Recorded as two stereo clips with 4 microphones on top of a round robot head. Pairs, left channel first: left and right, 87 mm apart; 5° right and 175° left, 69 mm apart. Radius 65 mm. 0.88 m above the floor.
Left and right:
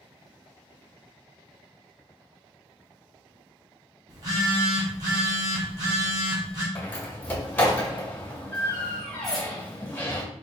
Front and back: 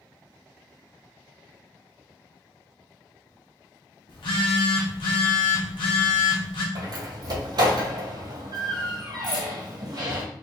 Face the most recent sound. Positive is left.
turn(degrees=0)